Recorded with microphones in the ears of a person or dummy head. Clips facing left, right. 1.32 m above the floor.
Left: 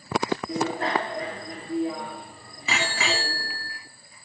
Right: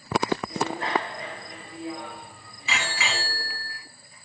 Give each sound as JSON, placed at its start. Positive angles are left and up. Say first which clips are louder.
{"t": 0.5, "sound": "a bicycle bell", "louder": "left 2 dB", "side_deg": 45, "distance_m": 2.5}